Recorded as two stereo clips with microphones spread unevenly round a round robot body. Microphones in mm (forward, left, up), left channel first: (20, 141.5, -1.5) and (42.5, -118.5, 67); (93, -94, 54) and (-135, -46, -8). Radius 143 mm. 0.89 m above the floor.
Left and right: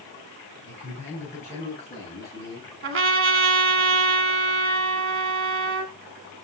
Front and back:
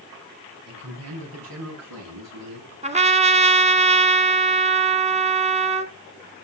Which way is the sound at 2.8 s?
125° right.